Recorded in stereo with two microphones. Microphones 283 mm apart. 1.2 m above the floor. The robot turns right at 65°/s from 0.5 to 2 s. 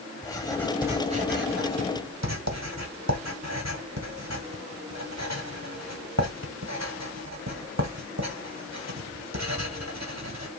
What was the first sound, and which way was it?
Writing, 15° left (ahead or behind).